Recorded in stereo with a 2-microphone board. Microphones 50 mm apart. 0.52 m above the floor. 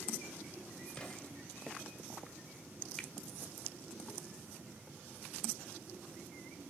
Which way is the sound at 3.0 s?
10° left (ahead or behind).